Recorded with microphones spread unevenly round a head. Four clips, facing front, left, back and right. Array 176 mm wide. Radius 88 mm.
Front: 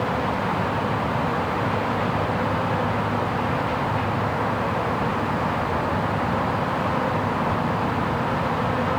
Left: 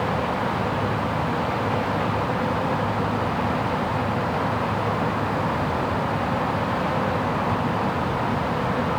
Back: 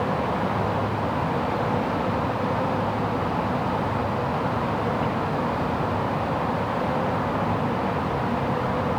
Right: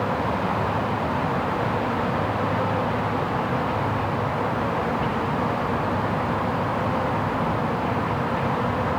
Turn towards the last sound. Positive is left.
No sound to turn to.